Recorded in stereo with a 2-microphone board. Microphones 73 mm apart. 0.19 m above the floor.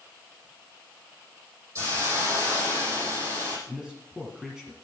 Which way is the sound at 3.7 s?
5° right (ahead or behind).